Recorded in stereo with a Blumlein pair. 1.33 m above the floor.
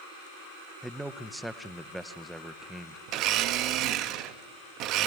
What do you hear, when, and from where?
0.8 s a man speaking: straight ahead, 0.7 m
3.1 s a blender: 35° right, 1.0 m